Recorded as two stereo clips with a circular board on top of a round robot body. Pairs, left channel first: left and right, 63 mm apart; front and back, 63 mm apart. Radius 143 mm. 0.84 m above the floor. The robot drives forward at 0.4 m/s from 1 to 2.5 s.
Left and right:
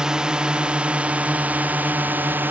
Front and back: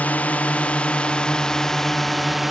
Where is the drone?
25° right; by 2.5 s 95° right.